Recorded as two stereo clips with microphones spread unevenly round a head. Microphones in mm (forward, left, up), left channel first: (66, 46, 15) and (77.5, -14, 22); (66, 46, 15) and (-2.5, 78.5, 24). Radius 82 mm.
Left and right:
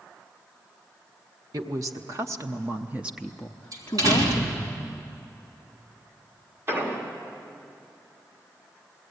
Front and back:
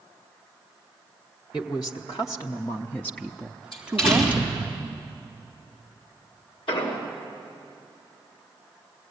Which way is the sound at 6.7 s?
35° right.